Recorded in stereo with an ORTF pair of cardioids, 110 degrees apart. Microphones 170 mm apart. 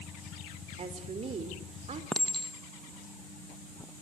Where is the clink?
Straight ahead, 1.2 m.